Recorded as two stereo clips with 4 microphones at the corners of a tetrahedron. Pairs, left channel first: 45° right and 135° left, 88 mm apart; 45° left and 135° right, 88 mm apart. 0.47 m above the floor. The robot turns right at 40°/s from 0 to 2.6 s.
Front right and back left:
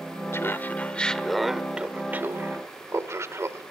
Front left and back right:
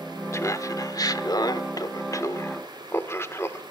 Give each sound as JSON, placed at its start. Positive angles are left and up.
{"t": 0.3, "sound": "laughter", "azimuth_deg": 0, "distance_m": 1.2}